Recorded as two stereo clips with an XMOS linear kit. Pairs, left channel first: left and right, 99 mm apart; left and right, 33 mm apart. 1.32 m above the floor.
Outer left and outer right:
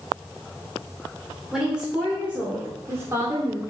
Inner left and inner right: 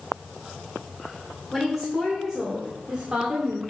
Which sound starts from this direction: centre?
A woman speaking, at 1.5 s.